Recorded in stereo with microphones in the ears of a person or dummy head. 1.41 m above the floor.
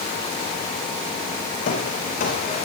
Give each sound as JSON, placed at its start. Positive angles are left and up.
{"t": 1.7, "sound": "footsteps", "side_deg": 45, "distance_m": 4.0}